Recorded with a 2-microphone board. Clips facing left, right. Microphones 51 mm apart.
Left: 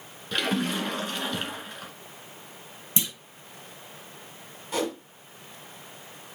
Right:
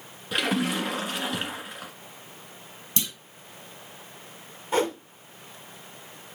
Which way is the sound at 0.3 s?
10° right (ahead or behind).